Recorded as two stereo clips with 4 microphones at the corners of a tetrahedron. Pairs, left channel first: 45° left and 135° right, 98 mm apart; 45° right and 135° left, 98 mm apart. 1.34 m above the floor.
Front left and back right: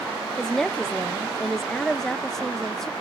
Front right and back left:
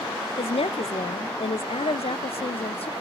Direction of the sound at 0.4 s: 40° right.